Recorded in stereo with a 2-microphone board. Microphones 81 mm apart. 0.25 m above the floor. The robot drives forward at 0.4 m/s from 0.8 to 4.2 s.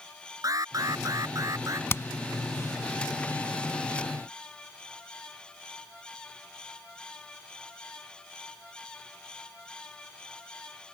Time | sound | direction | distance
0.4 | an alarm | 45° right (ahead or behind) | ?
1.9 | hammering | 35° left (ahead or behind) | ?